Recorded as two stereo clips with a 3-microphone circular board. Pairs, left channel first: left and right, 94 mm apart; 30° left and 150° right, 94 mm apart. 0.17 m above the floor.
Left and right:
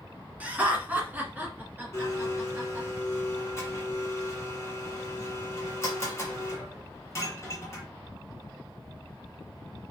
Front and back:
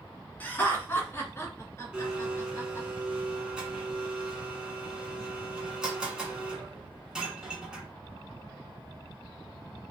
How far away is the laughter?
About 1.2 m.